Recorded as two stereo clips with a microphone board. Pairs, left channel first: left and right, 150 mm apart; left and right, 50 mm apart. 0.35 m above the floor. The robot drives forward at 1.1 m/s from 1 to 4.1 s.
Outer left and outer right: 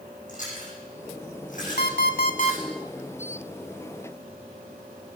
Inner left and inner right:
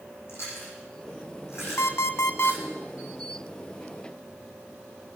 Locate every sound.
0.3 s chewing: 55° left (ahead or behind), 7 m; by 2.6 s 70° left (ahead or behind), 6.5 m
1.8 s an alarm clock: 70° left (ahead or behind), 1.0 m; by 2.6 s 50° left (ahead or behind), 1.2 m